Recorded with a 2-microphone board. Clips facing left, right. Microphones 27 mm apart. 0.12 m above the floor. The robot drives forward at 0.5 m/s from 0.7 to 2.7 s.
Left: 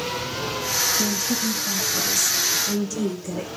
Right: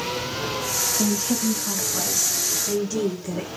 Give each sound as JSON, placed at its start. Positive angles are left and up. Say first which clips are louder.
{"t": 1.0, "sound": "a woman speaking", "louder": "right 1 dB", "side_deg": -20, "distance_m": 1.4}